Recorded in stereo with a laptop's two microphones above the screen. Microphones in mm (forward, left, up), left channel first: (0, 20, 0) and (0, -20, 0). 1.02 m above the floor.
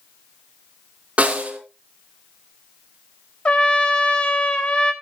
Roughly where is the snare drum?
Right.